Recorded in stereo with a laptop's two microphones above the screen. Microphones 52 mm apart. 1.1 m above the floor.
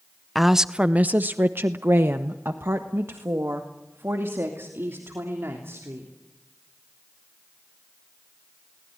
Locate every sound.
0.3 s a woman speaking: centre (ahead or behind), 0.6 m; by 6.1 s 50° right (ahead or behind), 3.5 m